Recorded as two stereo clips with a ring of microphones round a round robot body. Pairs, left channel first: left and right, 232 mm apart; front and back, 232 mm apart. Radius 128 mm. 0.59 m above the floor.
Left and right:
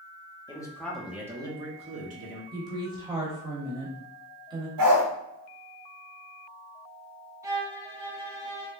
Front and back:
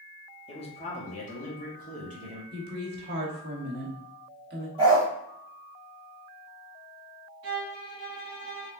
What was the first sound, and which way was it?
A man speaking, 40° left.